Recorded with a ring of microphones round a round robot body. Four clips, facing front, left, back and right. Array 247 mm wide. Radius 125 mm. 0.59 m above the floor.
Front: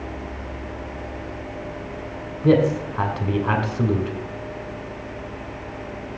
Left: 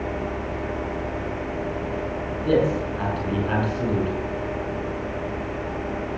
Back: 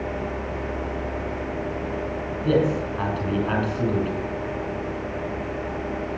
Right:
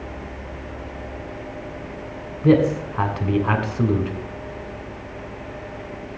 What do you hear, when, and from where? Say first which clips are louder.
2.4 s a man speaking: right 4 dB, front 4 dB; 50° right, 3 m